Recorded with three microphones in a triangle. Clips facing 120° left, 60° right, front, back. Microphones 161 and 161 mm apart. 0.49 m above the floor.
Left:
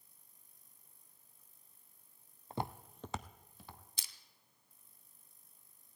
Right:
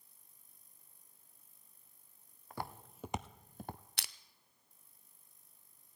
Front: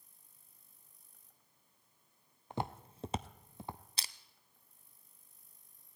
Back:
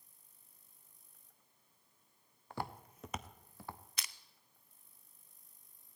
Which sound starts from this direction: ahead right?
Crushing, at 4.0 s.